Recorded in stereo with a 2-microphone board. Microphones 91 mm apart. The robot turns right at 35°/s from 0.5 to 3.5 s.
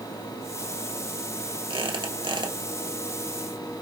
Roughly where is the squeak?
Right.